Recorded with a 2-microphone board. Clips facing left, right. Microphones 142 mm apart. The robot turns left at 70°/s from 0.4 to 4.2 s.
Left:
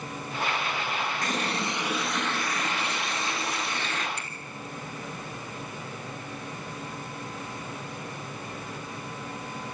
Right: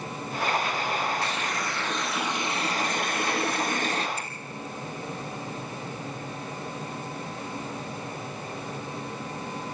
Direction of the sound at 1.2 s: 60° left.